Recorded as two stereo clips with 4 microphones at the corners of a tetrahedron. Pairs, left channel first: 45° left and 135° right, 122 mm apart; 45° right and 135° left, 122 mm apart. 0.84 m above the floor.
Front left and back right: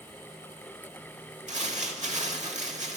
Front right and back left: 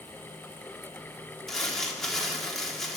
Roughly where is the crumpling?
Behind right.